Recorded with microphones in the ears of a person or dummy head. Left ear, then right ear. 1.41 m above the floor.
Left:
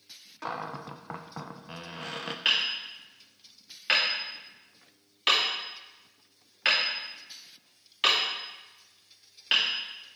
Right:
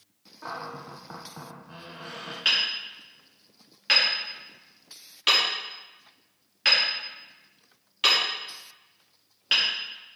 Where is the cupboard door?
65° left (ahead or behind), 0.6 m.